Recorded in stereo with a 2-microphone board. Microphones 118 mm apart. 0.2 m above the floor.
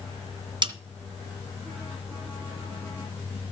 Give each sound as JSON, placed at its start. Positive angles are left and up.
{"t": 0.6, "sound": "a snare drum", "side_deg": -40, "distance_m": 1.6}